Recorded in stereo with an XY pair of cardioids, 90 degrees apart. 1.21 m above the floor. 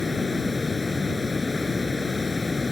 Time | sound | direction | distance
0.0 | running water | 30° left | ?